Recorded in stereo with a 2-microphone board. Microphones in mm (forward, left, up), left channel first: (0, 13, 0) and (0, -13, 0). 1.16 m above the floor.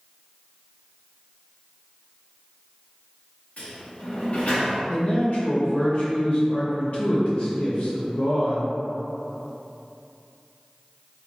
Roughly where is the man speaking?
Left.